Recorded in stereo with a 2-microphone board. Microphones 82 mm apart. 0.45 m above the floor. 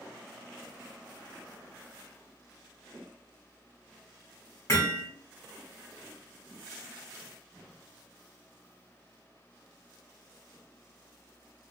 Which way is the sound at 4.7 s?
30° left (ahead or behind).